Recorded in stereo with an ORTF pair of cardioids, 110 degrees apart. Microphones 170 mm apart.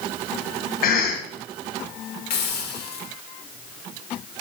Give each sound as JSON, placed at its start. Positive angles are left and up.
{"t": 0.8, "sound": "a cough", "azimuth_deg": 55, "distance_m": 0.8}
{"t": 2.3, "sound": "a hiss", "azimuth_deg": 70, "distance_m": 1.4}